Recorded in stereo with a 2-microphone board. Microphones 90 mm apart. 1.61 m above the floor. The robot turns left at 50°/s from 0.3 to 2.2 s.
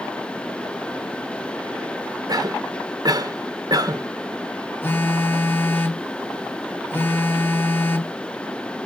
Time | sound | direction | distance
2.3 | a cough | 45° right (ahead or behind) | 0.8 m
4.8 | a phone buzzing | 20° left (ahead or behind) | 0.9 m